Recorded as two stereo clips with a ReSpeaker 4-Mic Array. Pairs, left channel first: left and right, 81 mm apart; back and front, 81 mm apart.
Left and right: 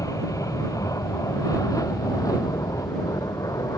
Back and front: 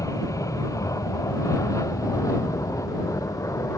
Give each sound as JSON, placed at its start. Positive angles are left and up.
{"t": 0.0, "sound": "an aircraft", "azimuth_deg": 135}